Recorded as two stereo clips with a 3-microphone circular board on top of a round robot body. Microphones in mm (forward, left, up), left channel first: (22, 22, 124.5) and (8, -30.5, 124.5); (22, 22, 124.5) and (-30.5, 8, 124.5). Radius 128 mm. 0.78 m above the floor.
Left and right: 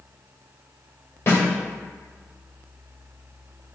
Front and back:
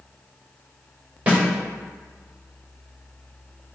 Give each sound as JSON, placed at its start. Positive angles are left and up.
{"t": 1.3, "sound": "a snare drum", "azimuth_deg": 130, "distance_m": 2.5}